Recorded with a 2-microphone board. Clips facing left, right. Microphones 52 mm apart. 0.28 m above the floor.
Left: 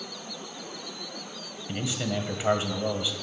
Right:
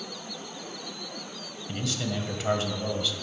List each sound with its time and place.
1.7 s a man speaking: 20° left (ahead or behind), 1.5 m